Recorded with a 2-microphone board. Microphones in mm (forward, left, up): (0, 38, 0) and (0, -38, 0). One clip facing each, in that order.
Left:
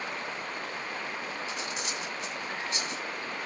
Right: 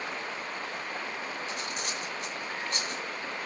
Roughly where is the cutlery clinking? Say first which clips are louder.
Even; right.